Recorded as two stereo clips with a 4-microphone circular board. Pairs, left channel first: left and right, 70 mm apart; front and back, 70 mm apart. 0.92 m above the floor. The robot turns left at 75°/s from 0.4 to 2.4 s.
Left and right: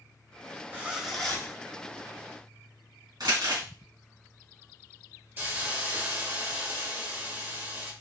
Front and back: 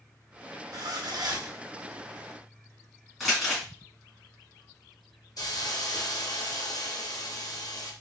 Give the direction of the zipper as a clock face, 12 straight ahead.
5 o'clock.